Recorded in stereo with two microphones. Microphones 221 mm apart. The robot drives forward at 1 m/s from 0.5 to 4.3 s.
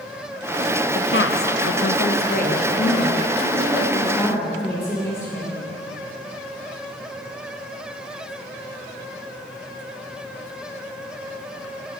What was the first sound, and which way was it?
A woman speaking, 50° left (ahead or behind).